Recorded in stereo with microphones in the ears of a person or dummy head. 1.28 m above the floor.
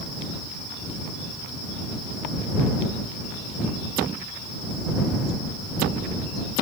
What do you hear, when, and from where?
Only background noise.